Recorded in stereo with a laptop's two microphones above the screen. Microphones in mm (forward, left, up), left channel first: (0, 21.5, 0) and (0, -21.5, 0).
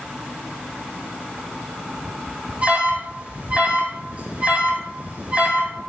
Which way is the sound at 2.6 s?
30° right (ahead or behind).